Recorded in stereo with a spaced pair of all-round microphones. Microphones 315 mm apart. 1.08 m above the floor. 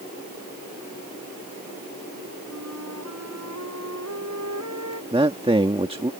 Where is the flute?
60° right (ahead or behind).